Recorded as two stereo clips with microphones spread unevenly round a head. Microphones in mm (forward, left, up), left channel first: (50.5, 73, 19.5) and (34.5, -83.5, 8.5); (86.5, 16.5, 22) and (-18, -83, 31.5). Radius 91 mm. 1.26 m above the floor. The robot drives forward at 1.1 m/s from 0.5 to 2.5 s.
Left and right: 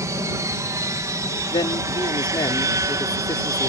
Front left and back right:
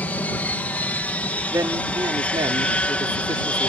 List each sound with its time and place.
0.0 s an aircraft: 30° right; by 3.7 s 35° right
1.5 s a man speaking: 150° left; by 3.7 s 155° left